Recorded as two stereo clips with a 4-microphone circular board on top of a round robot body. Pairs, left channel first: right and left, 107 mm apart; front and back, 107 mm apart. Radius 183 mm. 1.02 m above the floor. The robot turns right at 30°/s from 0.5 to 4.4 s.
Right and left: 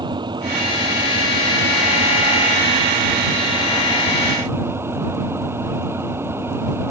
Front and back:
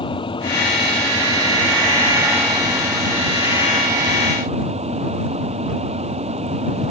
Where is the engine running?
40° left; by 6.9 s 160° left.